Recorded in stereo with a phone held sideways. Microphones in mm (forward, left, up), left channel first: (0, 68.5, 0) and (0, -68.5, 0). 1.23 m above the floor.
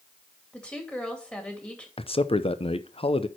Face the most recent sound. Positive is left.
turn(degrees=45)  # may be behind; listen again after turning